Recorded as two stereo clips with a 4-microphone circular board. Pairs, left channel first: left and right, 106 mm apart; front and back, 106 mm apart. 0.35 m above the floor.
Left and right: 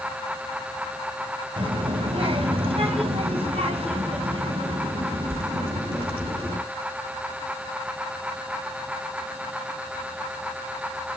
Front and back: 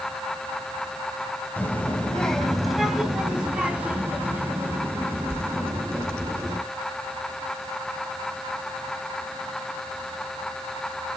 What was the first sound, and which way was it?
A child speaking, 70° right.